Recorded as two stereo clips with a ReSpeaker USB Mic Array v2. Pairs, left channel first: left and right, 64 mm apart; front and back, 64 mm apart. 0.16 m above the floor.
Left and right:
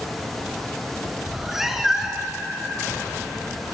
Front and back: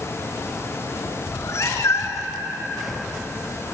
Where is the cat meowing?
10° right, 0.6 m.